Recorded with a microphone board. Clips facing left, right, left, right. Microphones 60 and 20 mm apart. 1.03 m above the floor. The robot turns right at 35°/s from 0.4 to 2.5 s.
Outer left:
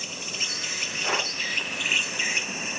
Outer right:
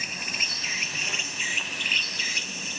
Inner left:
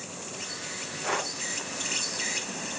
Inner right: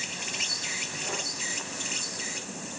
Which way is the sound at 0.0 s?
45° right.